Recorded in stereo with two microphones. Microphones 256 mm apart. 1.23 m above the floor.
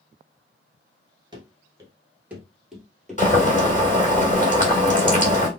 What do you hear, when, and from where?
1.3 s running footsteps: 20° right (ahead or behind), 1.2 m; by 4.0 s 10° left (ahead or behind), 2 m
3.2 s boiling: 30° left (ahead or behind), 1.7 m